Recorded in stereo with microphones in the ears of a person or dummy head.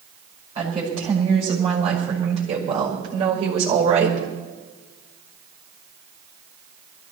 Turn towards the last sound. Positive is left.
turn(degrees=-40)  # may be behind; listen again after turning